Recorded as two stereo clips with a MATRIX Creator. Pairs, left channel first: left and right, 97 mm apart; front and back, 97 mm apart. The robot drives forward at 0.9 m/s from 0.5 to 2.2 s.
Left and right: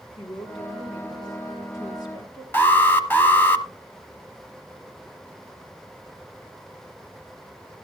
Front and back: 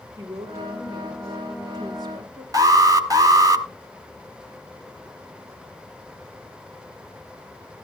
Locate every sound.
0.2 s a woman speaking: 120° left, 3.5 m; by 2.4 s 140° left, 4.5 m
2.5 s an alarm: 150° left, 1.1 m